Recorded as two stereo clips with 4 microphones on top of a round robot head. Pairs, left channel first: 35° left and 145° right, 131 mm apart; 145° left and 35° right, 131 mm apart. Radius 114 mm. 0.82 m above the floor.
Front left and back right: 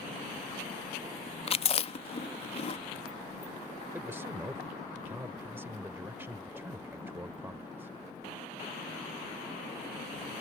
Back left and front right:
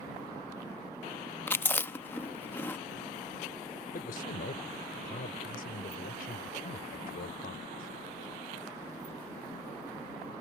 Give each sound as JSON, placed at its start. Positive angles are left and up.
{"t": 1.5, "sound": "chewing", "azimuth_deg": 75}
{"t": 3.9, "sound": "a man speaking", "azimuth_deg": 140}